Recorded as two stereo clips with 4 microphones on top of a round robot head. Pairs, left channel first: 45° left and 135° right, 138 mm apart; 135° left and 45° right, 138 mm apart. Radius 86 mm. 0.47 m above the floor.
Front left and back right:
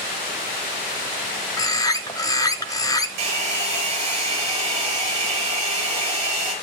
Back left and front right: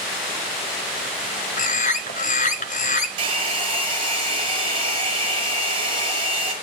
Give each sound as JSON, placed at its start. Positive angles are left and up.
{"t": 1.6, "sound": "a bird", "azimuth_deg": 110, "distance_m": 1.2}
{"t": 3.2, "sound": "a hair dryer", "azimuth_deg": -95, "distance_m": 5.5}